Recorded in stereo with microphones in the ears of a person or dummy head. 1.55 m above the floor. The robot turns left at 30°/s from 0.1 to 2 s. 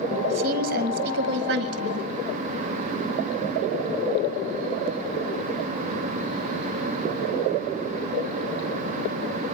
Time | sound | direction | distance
0.3 | a woman speaking | 50° right | 2 m